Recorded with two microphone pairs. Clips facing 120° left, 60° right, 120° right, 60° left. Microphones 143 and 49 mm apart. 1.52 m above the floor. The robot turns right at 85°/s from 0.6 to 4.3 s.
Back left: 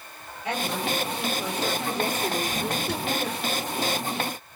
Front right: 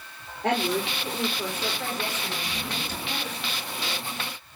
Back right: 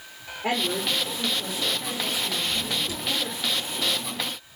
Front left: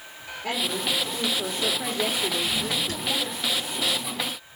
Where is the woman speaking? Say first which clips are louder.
Front right 3 dB, back right 2 dB; 60° right, 4.5 m; by 3.4 s straight behind, 4.5 m.